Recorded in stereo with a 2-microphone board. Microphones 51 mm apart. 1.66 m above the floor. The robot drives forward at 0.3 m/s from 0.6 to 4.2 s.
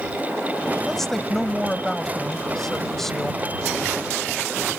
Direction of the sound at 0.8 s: 5° left (ahead or behind).